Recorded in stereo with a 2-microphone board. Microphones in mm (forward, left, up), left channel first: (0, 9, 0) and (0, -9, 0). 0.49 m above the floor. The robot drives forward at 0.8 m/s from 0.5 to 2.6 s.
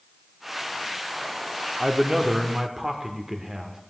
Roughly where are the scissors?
No scissors in this recording.